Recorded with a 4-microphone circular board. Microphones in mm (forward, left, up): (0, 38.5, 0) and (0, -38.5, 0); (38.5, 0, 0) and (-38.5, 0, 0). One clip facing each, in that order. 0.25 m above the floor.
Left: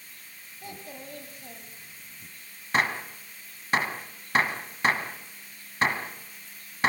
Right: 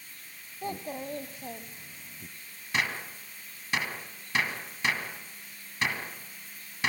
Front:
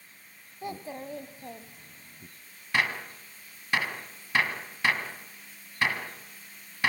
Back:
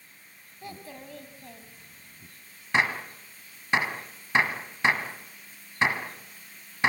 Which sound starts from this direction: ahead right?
A child speaking, at 0.6 s.